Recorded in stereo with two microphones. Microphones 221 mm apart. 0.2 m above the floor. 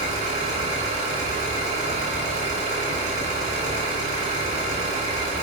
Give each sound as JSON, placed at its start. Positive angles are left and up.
{"t": 0.0, "sound": "an engine running", "side_deg": -35, "distance_m": 1.0}